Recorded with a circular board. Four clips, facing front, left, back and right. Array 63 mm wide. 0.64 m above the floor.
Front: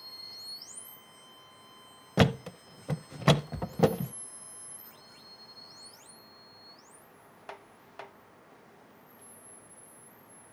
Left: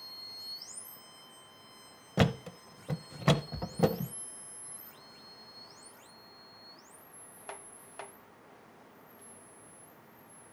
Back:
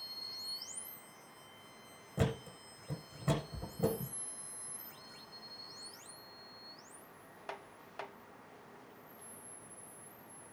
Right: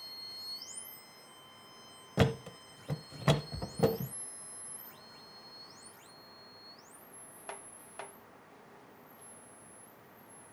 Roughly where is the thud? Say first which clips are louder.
Left 1 dB, front 10 dB; ahead.